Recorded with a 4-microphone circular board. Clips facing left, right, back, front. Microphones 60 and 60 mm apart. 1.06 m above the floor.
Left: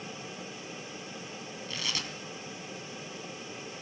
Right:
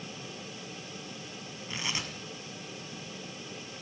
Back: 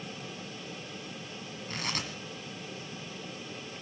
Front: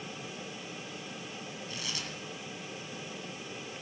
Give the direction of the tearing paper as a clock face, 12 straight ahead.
5 o'clock.